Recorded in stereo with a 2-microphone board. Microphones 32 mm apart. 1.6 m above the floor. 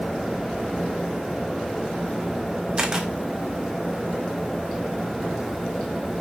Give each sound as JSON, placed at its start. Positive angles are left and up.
{"t": 2.8, "sound": "a camera shutter", "side_deg": -25, "distance_m": 1.4}